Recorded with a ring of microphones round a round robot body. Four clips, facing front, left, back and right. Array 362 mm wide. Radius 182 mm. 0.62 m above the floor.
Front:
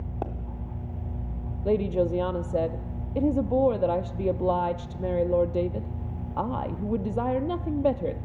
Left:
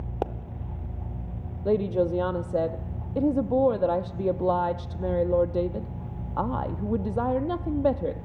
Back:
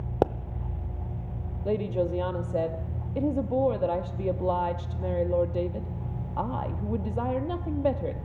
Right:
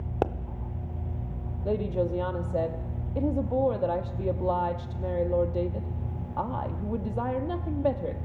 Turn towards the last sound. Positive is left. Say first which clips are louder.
# left 4 dB, front 3 dB
turn(degrees=55)